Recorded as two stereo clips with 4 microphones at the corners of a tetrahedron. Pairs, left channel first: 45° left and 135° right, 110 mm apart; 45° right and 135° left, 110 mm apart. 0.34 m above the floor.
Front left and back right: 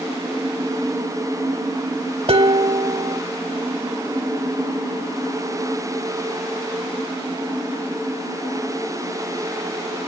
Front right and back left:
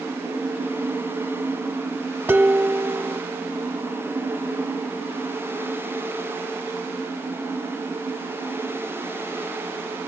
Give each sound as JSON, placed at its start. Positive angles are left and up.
{"t": 2.3, "sound": "dishes clattering", "azimuth_deg": -160, "distance_m": 1.2}